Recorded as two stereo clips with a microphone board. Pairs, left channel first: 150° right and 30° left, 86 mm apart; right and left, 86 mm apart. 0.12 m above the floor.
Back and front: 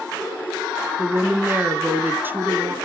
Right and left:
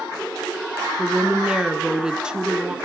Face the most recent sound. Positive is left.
turn(degrees=25)